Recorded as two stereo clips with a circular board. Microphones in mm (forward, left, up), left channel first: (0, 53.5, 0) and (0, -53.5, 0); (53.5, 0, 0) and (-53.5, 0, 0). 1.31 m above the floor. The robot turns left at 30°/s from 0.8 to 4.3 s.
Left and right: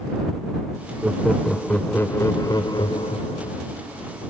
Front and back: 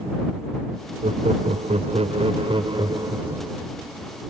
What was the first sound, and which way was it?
Laughter, 170° right.